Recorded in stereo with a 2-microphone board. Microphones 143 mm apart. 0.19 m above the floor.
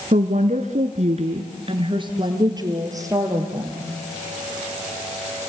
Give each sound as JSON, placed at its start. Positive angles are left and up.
{"t": 0.1, "sound": "a woman speaking", "side_deg": -60, "distance_m": 2.5}